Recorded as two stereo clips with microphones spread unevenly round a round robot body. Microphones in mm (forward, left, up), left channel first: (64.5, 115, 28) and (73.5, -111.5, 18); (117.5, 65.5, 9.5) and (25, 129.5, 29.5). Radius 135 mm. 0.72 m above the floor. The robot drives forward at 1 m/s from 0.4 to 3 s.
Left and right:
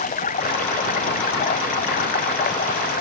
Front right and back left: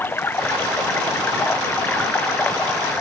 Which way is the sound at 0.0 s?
40° left.